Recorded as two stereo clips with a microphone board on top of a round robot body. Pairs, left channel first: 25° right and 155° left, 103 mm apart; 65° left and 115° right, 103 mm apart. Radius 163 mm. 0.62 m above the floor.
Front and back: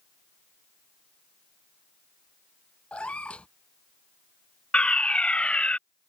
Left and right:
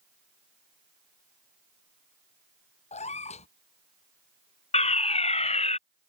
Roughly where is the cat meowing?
Ahead left.